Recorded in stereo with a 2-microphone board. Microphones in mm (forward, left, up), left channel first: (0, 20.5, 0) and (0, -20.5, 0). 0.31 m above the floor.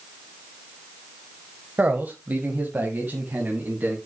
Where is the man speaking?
40° right (ahead or behind), 1.3 m; by 4.0 s 45° right (ahead or behind), 2.5 m.